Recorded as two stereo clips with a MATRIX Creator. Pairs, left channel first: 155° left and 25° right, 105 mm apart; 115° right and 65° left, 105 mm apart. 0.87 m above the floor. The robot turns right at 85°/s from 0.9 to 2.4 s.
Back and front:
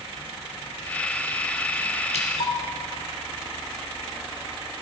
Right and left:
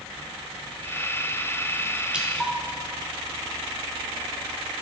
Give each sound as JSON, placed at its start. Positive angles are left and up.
{"t": 2.1, "sound": "dripping", "azimuth_deg": 145, "distance_m": 1.2}